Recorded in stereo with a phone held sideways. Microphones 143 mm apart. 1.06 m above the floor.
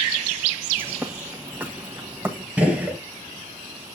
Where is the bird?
15° right (ahead or behind), 1.3 m.